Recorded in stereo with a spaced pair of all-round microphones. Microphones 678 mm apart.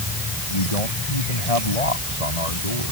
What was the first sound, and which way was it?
A man speaking, 65° left (ahead or behind).